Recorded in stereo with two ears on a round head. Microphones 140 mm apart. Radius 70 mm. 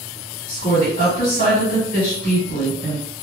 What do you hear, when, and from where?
0.5 s a woman speaking: 55° left (ahead or behind), 1.8 m